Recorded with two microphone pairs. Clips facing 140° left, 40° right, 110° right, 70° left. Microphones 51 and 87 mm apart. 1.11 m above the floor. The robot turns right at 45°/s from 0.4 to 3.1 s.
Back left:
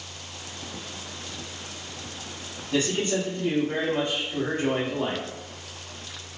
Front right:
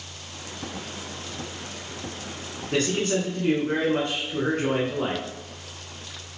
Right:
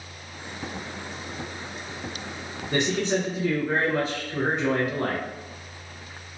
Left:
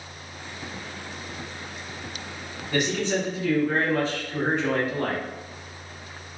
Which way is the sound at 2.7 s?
55° right.